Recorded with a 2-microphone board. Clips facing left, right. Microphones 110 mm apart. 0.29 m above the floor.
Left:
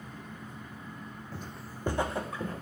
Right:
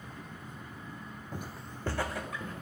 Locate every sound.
1.3 s footsteps: 20° right (ahead or behind), 0.6 m; by 2.6 s 40° left (ahead or behind), 1.2 m